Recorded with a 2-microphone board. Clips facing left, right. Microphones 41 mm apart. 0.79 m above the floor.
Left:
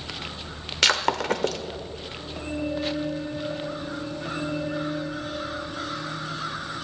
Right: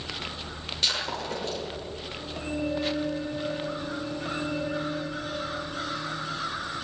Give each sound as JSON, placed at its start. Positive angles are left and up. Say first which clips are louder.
{"t": 0.8, "sound": "breaking glass", "louder": "left 8 dB", "side_deg": 85, "distance_m": 1.1}